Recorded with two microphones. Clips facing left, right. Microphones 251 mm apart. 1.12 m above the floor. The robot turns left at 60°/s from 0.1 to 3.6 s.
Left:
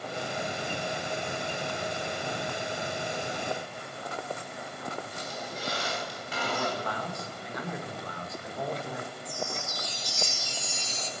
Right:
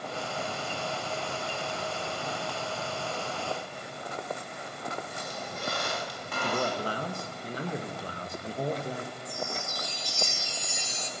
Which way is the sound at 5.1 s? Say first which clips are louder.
Even; 55° right (ahead or behind).